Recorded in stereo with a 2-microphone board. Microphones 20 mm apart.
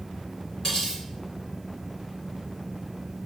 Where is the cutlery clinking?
40° left (ahead or behind), 1.5 m.